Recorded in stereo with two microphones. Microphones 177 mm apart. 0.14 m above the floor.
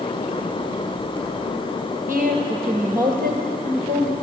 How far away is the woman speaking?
About 2 m.